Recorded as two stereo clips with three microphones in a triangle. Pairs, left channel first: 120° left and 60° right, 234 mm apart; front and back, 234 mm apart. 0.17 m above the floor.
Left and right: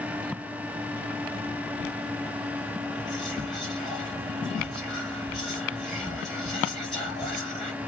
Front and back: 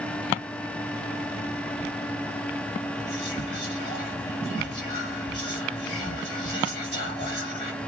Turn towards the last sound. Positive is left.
turn(degrees=60)